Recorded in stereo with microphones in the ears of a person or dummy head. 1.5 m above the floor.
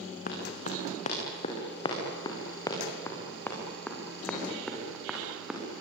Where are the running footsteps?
50° left (ahead or behind), 5.5 m; by 5.6 s centre (ahead or behind), 7 m.